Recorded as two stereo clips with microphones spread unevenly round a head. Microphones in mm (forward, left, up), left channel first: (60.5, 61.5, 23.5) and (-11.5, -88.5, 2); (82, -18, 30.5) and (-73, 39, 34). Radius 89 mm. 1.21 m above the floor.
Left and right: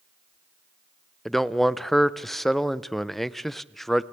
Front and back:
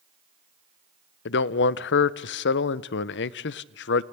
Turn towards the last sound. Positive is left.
turn(degrees=-25)